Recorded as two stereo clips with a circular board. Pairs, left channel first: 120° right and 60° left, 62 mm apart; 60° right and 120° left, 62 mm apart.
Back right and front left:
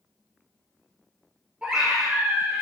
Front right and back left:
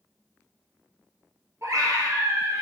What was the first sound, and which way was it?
A scream, 130° left.